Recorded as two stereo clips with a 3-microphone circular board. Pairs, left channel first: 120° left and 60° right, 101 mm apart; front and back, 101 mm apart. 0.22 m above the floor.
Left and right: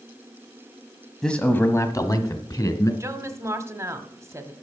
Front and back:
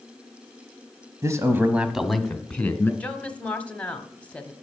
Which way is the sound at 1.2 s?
160° right.